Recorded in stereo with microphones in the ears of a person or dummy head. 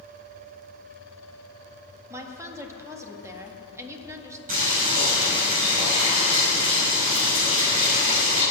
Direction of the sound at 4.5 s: 45° right (ahead or behind).